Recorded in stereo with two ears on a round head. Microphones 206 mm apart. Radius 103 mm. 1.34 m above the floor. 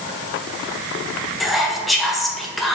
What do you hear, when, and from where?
1.4 s whispering: centre (ahead or behind), 0.6 m